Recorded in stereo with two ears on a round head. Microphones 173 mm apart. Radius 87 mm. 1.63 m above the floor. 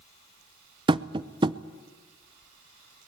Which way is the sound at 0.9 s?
25° right (ahead or behind).